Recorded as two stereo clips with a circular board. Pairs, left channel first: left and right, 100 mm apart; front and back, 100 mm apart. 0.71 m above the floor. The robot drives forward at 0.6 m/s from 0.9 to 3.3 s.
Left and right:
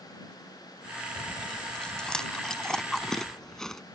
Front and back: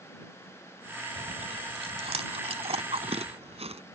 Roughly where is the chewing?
Behind.